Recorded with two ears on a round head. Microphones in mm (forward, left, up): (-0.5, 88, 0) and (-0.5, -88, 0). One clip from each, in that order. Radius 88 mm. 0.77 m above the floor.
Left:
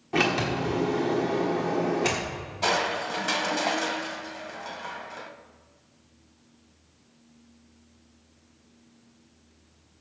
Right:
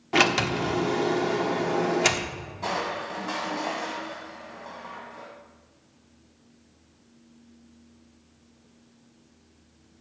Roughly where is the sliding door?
Right.